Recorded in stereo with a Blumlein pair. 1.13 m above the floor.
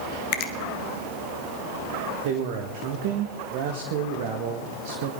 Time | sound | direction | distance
0.3 | a finger snap | 45° left | 1.4 m
2.2 | a man speaking | 50° right | 1.6 m